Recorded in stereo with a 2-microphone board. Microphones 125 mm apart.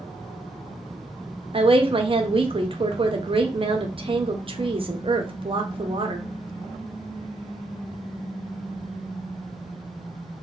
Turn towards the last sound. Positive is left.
turn(degrees=-45)  # may be behind; listen again after turning